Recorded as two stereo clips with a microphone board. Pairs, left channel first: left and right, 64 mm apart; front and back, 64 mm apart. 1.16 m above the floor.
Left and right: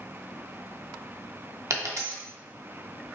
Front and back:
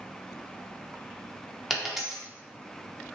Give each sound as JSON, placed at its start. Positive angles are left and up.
{"t": 1.7, "sound": "a dropped coin", "azimuth_deg": -95, "distance_m": 1.0}